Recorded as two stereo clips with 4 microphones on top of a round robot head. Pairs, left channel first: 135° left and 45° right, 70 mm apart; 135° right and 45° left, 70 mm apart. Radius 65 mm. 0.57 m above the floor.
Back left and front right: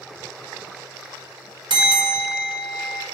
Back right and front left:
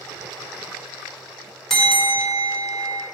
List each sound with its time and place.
1.7 s a bell: 50° right, 1.4 m